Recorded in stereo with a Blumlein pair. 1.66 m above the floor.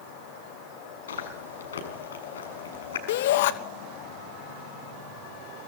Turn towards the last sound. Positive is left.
turn(degrees=55)